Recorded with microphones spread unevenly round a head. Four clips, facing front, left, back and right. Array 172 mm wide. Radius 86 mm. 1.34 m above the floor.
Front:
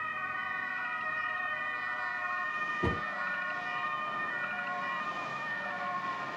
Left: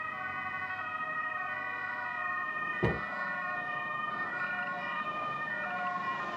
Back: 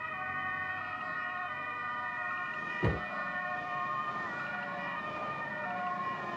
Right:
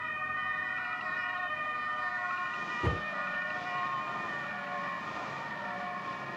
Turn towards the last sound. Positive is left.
turn(degrees=85)